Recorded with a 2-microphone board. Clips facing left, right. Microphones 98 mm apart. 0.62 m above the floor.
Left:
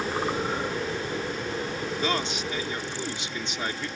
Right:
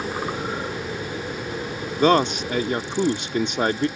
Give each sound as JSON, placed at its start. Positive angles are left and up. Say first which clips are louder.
{"t": 2.0, "sound": "a man speaking", "louder": "right 13 dB", "side_deg": -55}